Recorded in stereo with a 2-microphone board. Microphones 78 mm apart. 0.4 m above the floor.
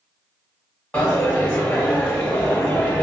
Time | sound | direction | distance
0.9 | a dropped coin | 15° left (ahead or behind) | 1.0 m